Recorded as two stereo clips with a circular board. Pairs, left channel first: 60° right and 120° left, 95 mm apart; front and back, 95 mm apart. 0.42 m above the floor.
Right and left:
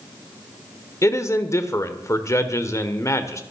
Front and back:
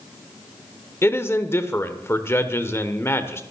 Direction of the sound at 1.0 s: 40° right.